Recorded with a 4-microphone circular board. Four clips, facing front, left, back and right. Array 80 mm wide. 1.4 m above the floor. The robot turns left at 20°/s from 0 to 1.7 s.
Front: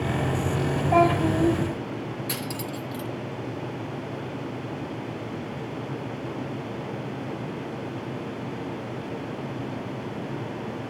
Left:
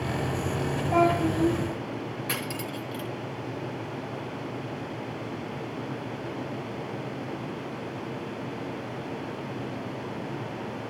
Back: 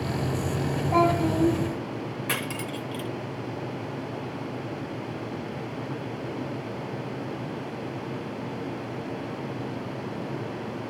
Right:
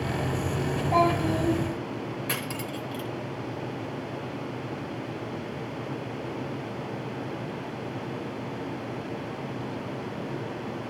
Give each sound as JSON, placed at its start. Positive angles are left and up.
{"t": 0.9, "sound": "a child speaking", "azimuth_deg": -5, "distance_m": 7.0}
{"t": 2.3, "sound": "cutlery clinking", "azimuth_deg": 180, "distance_m": 0.5}